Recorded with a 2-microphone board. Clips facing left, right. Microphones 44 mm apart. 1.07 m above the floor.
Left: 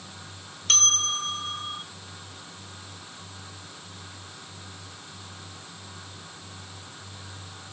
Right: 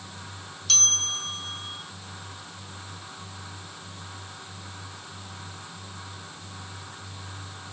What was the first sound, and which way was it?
A bell, 45° left (ahead or behind).